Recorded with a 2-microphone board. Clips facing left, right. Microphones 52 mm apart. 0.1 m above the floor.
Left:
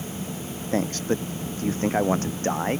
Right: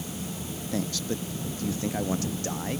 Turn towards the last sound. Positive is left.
turn(degrees=40)  # may be behind; listen again after turning